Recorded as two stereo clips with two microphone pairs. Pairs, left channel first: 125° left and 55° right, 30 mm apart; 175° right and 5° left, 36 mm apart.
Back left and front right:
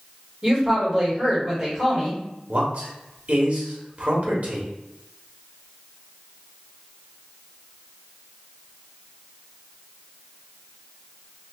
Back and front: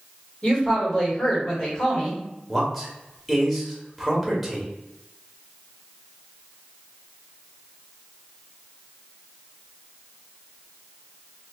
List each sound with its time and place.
0.4 s a woman speaking: 120° right, 1.8 m
2.5 s a man speaking: 90° right, 1.4 m